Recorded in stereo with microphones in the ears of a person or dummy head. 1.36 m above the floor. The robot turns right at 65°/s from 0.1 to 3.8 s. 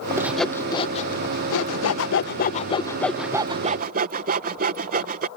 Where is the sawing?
10° right (ahead or behind); by 5.3 s 45° right (ahead or behind).